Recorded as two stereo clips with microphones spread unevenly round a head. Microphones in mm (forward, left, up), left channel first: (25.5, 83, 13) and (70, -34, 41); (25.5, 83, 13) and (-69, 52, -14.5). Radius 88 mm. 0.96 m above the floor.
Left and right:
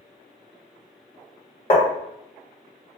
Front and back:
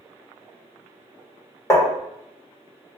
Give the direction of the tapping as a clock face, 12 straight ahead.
9 o'clock.